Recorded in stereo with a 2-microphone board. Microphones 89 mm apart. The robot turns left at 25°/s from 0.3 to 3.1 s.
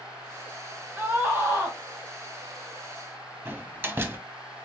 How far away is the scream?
About 1.4 m.